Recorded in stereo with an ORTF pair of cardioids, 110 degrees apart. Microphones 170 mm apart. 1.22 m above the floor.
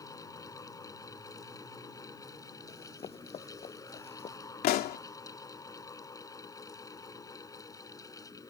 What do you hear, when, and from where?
0.0 s a fan: 20° left
2.7 s running footsteps: 40° left
4.6 s a pop: 65° left